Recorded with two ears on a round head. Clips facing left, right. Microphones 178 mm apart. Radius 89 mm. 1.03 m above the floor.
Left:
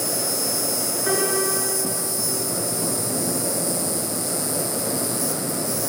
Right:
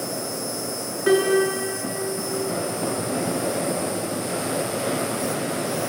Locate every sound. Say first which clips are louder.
0.0 s an insect: left 1 dB; 45° left (ahead or behind), 1.5 m
1.1 s a piano: right 7 dB; 35° right (ahead or behind), 6.5 m